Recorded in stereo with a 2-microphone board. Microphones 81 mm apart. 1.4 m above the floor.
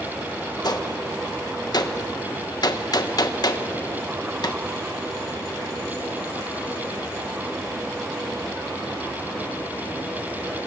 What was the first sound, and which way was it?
A gunshot, 55° left (ahead or behind).